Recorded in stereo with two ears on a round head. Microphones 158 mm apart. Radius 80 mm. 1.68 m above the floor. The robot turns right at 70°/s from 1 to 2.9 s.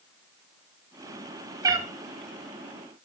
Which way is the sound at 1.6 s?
20° right (ahead or behind).